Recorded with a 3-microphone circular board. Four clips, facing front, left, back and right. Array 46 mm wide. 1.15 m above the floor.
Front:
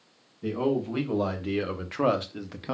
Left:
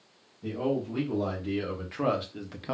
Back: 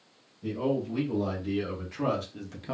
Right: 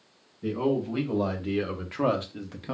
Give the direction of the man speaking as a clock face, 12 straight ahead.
1 o'clock.